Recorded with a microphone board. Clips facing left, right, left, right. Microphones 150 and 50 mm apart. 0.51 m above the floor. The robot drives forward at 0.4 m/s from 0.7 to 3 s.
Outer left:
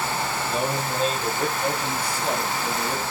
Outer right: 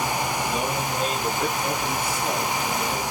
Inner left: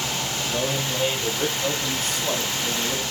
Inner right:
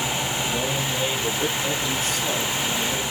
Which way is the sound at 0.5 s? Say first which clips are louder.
Even, even; 35° left (ahead or behind).